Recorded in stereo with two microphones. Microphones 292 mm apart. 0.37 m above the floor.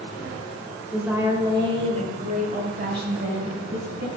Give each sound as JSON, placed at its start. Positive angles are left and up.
{"t": 0.9, "sound": "a woman speaking", "side_deg": 0, "distance_m": 1.6}